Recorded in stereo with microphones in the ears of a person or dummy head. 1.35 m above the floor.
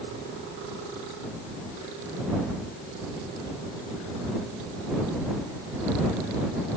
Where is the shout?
No shout in this recording.